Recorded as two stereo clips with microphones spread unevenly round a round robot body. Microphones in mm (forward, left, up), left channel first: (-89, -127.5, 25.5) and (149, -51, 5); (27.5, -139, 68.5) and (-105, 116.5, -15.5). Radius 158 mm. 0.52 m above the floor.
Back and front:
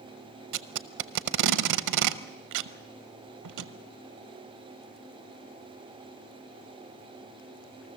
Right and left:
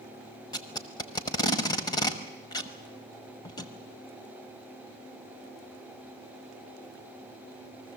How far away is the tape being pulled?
About 0.9 m.